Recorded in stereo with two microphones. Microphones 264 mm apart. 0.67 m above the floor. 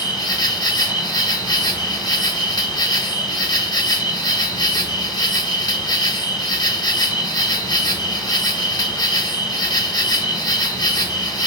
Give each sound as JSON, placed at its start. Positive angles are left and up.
{"t": 0.0, "sound": "an insect", "side_deg": 15, "distance_m": 0.7}